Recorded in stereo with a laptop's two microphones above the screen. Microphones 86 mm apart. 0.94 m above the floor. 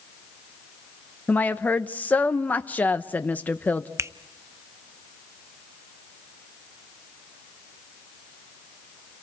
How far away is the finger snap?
About 0.6 m.